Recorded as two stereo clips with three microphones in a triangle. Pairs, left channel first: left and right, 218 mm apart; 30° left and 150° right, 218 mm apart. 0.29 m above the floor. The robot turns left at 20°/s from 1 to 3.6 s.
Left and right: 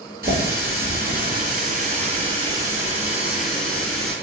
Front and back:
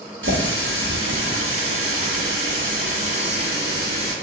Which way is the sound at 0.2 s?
130° right.